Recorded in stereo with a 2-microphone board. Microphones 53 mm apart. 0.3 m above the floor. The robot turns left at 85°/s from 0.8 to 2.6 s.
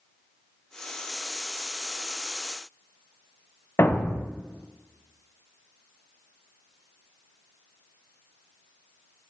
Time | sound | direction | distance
3.8 | a thud | 45° left (ahead or behind) | 0.5 m